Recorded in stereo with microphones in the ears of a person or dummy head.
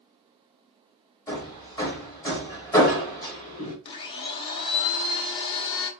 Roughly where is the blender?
Left.